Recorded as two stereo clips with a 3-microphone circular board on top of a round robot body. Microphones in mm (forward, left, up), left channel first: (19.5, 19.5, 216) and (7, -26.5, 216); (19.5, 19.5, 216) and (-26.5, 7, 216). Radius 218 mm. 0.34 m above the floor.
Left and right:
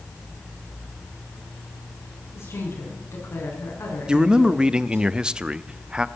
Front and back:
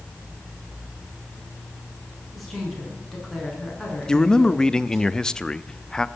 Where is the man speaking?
50° right, 0.9 m.